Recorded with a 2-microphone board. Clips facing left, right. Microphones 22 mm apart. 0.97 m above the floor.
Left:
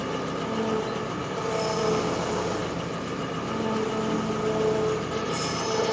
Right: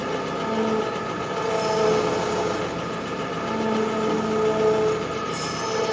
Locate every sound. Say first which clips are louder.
0.0 s an engine running: right 3 dB; 60° right (ahead or behind), 1.2 m